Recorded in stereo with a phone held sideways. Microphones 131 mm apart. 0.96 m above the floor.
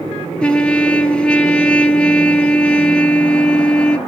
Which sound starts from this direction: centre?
A trumpet, at 0.4 s.